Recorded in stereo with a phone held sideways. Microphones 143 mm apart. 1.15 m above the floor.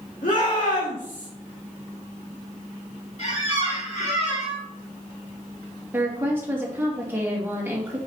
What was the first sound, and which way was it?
A shout, 80° left.